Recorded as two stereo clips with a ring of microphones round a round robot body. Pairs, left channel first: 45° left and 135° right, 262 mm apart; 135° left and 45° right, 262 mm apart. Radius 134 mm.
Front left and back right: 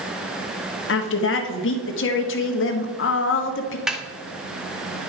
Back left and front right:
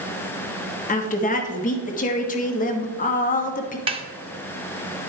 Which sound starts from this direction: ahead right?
A snare drum, at 3.9 s.